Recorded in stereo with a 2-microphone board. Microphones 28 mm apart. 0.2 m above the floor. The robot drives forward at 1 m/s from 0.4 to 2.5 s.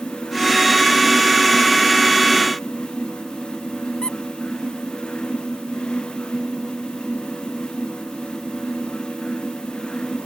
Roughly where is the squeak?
Left.